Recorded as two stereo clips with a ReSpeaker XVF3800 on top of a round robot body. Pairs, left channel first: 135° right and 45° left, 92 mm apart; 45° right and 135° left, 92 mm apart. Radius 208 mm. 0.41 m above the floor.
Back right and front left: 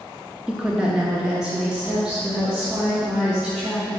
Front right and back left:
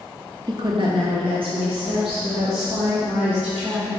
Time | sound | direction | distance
0.5 | a woman speaking | 125° left | 0.9 m